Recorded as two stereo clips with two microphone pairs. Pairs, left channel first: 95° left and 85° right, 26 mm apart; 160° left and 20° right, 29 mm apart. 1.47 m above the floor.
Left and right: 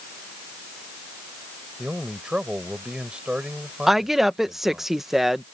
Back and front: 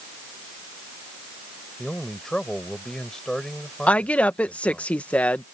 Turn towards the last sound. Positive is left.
turn(degrees=-165)